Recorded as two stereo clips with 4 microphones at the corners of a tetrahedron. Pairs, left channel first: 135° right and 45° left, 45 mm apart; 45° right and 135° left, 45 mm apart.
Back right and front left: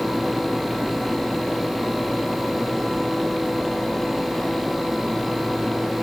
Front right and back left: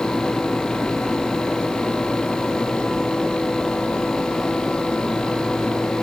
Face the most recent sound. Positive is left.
No sound to turn to.